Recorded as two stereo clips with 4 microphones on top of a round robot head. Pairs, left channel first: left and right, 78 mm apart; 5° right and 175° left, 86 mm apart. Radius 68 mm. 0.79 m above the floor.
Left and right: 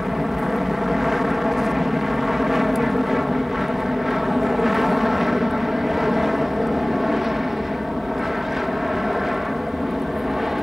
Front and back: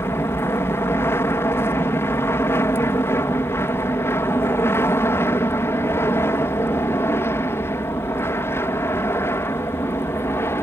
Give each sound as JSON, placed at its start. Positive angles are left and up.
{"t": 0.0, "sound": "an aircraft", "azimuth_deg": -5}